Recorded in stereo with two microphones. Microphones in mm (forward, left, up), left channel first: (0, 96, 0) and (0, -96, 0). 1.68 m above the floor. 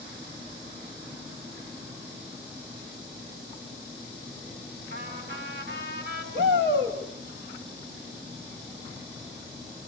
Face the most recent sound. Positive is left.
turn(degrees=-35)  # may be behind; listen again after turning